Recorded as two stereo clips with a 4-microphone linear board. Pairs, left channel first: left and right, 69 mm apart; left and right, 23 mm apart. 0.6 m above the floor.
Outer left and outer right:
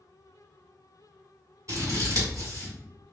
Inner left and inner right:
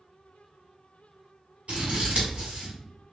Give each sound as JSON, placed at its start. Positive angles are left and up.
{"t": 1.7, "sound": "scissors", "side_deg": -55, "distance_m": 1.8}